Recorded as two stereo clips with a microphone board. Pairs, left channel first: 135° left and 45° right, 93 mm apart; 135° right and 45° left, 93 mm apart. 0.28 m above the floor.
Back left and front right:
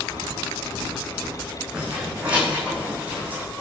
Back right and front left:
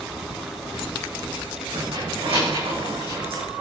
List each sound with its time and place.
1.7 s keys jangling: 35° left, 9 m; by 3.4 s 30° left, 8.5 m